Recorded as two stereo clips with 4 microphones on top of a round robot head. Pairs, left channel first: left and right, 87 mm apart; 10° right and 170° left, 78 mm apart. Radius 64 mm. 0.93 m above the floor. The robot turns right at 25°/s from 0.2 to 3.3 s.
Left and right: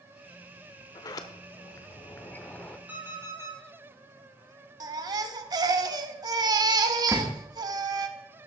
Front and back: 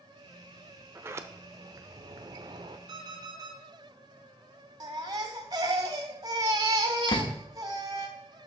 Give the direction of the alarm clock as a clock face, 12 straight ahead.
5 o'clock.